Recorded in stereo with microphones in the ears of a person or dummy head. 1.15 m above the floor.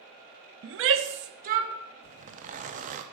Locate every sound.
0.6 s a shout: 65° right (ahead or behind), 0.8 m; by 1.7 s 35° right (ahead or behind), 1.1 m
2.0 s a zipper: 40° right (ahead or behind), 0.7 m